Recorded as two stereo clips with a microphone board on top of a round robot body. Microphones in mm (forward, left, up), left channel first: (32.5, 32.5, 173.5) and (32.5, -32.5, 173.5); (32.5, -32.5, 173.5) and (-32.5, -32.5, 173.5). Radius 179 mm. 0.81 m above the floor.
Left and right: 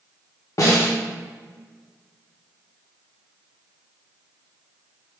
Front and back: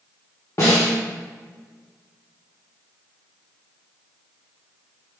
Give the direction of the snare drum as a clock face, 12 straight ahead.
10 o'clock.